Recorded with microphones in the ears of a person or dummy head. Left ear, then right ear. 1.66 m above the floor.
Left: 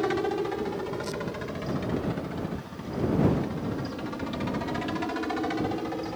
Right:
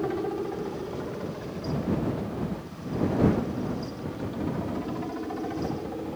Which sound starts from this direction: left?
A helicopter, at 0.0 s.